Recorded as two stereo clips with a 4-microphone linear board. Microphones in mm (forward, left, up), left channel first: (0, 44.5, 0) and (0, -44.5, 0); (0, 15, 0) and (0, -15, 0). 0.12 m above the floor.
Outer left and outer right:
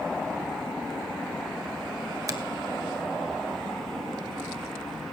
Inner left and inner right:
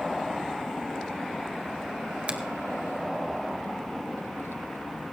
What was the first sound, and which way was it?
A finger snap, 40° right (ahead or behind).